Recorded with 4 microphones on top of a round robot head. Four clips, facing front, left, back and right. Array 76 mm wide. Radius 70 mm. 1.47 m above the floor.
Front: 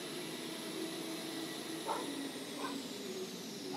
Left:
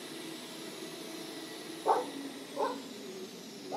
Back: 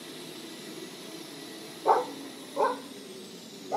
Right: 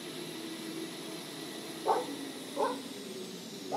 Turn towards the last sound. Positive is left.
turn(degrees=-175)